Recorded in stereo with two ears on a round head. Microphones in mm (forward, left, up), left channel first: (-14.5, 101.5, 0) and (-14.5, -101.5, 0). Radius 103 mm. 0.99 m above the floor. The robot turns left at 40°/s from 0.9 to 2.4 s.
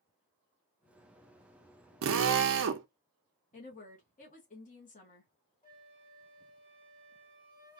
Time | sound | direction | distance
2.0 | a drill | 60° right (ahead or behind) | 0.5 m
3.5 | a woman speaking | 35° left (ahead or behind) | 0.9 m
5.6 | a flute | 20° left (ahead or behind) | 1.2 m